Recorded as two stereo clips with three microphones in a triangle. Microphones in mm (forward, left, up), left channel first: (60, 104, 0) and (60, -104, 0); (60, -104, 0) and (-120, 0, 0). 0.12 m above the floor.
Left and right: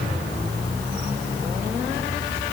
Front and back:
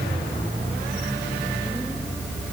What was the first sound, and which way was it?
Only background noise.